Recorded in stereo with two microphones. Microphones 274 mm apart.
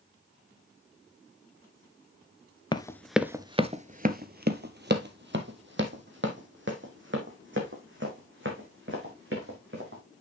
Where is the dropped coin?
I don't hear a dropped coin.